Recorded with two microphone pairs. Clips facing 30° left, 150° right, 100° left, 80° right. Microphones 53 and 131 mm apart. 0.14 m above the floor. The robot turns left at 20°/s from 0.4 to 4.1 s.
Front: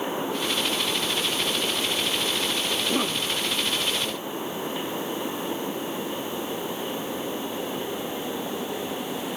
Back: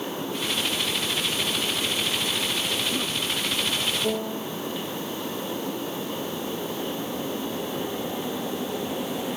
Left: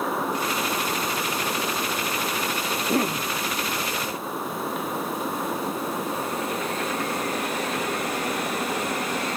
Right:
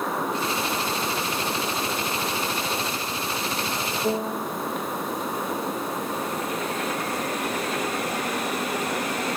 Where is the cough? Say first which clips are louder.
Front 2 dB, left 5 dB; 90° left; by 3.3 s 80° left.